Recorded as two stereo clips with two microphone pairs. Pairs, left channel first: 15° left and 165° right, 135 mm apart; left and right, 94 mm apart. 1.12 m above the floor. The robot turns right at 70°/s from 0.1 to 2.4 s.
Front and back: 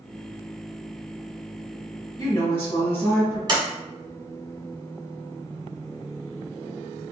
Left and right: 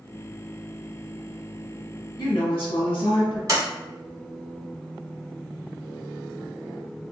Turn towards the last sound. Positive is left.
turn(degrees=-120)